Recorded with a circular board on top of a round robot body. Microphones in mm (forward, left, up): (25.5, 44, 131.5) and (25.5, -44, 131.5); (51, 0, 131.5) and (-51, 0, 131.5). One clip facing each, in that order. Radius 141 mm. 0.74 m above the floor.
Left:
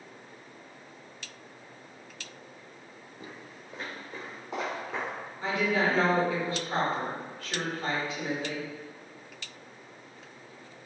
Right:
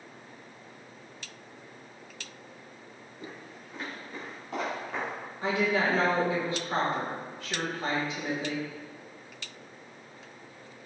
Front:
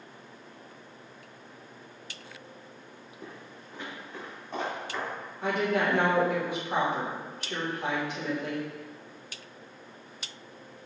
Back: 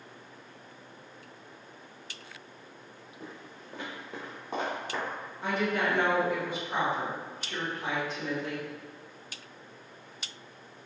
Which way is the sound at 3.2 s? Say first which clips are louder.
Right 2 dB, even; 125° left.